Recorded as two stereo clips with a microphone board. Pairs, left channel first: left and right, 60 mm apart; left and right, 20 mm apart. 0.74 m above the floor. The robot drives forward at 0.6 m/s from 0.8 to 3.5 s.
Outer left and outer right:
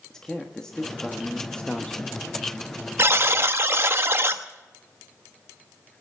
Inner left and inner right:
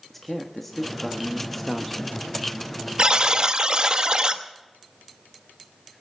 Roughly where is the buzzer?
Right.